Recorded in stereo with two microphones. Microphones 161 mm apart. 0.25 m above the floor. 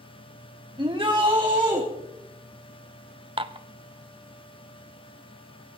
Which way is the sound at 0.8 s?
30° right (ahead or behind).